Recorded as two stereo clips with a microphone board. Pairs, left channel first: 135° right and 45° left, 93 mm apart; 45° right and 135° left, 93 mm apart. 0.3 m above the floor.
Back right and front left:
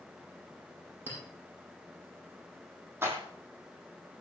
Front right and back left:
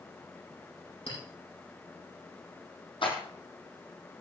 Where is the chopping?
I don't hear chopping.